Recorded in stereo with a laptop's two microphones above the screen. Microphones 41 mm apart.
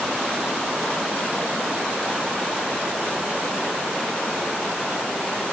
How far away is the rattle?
No rattle in this recording.